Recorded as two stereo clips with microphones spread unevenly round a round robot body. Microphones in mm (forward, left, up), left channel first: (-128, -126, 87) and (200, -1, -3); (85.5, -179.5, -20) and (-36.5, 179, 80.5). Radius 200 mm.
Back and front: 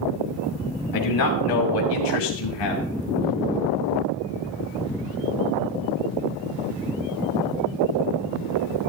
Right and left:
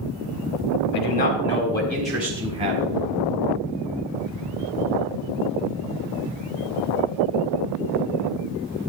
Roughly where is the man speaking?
Behind right.